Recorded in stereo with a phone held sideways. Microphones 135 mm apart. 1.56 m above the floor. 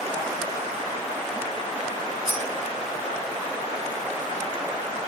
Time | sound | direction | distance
2.2 | cutlery clinking | 25° left (ahead or behind) | 2.0 m